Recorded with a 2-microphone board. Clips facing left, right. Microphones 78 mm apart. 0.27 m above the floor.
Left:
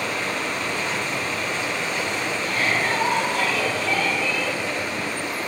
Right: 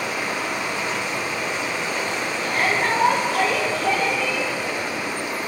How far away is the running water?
About 2.5 m.